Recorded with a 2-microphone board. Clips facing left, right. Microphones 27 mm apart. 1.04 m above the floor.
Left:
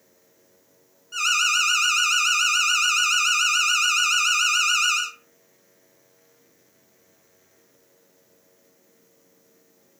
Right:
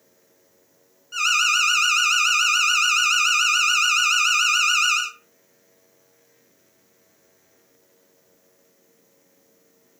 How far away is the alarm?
About 0.5 m.